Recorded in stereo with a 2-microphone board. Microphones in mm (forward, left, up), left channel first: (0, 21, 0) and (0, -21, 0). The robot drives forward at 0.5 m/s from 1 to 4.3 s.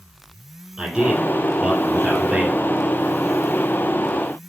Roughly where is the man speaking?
Right.